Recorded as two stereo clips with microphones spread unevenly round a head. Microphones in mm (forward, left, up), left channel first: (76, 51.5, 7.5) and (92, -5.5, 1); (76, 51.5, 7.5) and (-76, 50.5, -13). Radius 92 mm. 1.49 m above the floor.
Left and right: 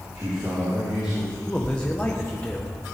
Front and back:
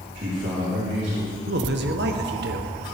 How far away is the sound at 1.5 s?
About 1.1 m.